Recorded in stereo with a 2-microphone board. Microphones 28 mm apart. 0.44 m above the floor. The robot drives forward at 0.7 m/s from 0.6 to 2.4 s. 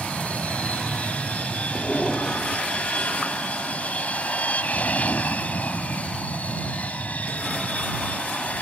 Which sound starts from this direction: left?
An aircraft, at 0.0 s.